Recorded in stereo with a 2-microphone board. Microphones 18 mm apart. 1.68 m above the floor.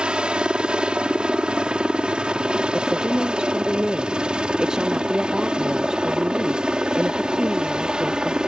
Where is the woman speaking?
50° right (ahead or behind).